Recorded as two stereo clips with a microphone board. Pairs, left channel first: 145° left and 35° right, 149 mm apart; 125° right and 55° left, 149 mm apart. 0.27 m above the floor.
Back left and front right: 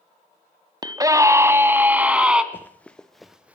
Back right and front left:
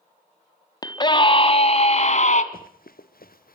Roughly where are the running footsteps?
Behind right.